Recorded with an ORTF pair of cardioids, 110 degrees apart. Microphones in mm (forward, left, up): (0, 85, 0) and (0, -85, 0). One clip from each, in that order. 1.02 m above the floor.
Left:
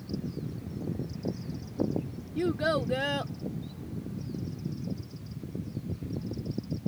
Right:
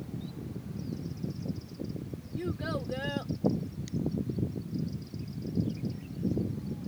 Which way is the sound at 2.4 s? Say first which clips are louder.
Left 8 dB; 45° left.